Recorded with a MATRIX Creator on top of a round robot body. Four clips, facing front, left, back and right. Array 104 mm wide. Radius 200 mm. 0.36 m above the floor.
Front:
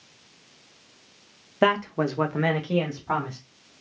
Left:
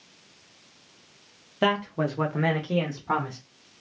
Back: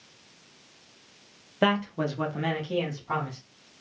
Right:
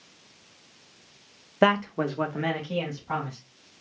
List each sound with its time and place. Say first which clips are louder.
1.6 s a man speaking: right 2 dB, front 3 dB; 65° right, 0.9 m; by 3.4 s 50° left, 1.5 m